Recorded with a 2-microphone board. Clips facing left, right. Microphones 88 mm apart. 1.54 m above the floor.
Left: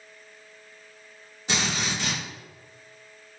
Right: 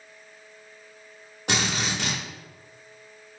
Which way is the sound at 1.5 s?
65° right (ahead or behind).